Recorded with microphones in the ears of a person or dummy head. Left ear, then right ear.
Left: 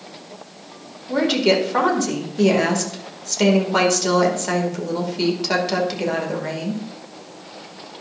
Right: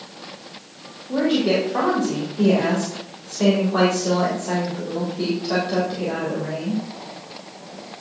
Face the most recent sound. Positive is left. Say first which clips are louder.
# left 2 dB
turn(degrees=70)  # may be behind; listen again after turning